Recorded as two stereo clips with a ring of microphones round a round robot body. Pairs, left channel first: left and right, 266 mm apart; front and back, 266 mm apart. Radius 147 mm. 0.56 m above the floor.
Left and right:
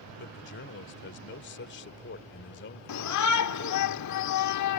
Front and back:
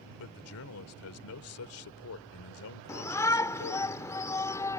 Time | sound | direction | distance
0.2 | a man speaking | 40° left | ?
2.9 | a shout | 80° left | ?